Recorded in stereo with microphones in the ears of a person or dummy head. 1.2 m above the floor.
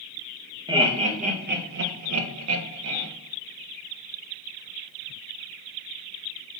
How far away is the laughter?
About 1.0 m.